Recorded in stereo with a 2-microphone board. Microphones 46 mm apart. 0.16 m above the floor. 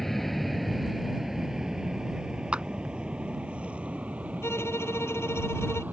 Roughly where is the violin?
Left.